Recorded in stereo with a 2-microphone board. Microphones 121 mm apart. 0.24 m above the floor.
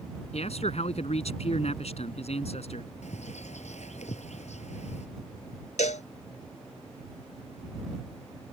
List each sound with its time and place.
0.3 s a man speaking: 60° left (ahead or behind)
3.0 s a bird: 70° left (ahead or behind)
5.8 s a cowbell: 80° left